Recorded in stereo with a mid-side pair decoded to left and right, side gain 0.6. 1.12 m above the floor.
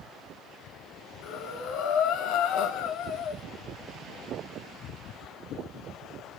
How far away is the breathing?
About 0.8 m.